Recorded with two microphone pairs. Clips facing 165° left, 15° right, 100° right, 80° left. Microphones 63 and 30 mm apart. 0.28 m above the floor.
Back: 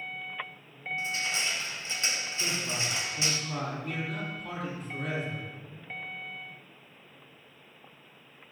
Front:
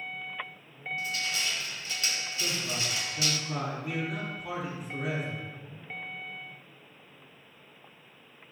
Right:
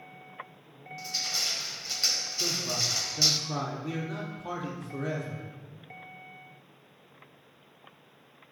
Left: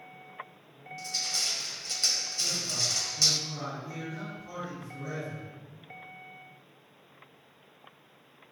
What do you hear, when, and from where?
1.0 s crushing: 165° right, 1.8 m
2.4 s a man speaking: 100° right, 8 m